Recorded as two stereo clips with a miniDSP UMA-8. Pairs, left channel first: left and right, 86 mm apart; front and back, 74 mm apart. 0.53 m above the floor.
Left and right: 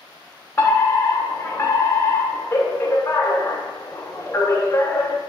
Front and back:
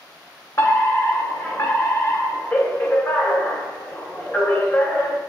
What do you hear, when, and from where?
0.6 s a fire alarm: 35° left, 3 m